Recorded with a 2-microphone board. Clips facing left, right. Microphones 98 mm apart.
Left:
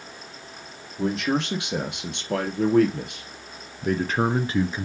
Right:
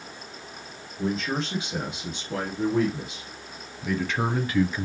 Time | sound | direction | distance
1.0 | a man speaking | 75° left (ahead or behind) | 3.5 m